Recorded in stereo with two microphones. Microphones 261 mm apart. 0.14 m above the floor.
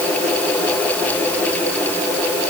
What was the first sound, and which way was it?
Only background noise.